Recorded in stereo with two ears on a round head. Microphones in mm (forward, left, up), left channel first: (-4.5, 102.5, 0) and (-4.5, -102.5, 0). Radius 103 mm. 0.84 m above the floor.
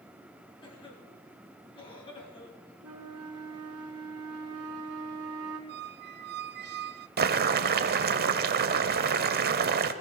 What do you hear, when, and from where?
0.6 s a cough: 25° left (ahead or behind), 7 m
2.8 s a flute: 70° right (ahead or behind), 2.5 m
5.7 s a squeak: 50° right (ahead or behind), 0.8 m
7.2 s boiling: 45° right (ahead or behind), 0.9 m